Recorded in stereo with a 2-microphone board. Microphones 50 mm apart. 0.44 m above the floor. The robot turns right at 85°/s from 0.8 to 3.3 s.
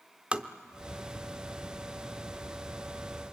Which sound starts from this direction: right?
Tapping, at 0.3 s.